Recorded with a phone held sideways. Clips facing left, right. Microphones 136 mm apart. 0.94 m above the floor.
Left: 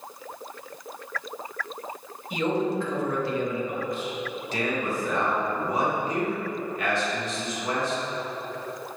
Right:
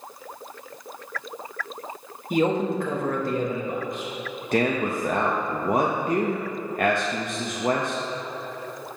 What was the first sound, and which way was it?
A man speaking, 50° right (ahead or behind).